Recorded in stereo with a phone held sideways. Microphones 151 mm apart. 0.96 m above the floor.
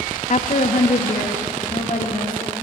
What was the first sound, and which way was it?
A woman speaking, 50° left (ahead or behind).